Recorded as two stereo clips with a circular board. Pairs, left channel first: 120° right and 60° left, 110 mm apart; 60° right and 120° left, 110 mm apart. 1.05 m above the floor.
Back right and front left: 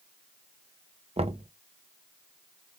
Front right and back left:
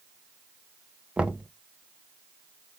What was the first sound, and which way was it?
Knocking, 40° left.